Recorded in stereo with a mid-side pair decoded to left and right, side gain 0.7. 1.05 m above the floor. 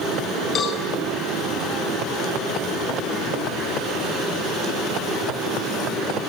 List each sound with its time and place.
0.6 s a cowbell: 35° left, 9.5 m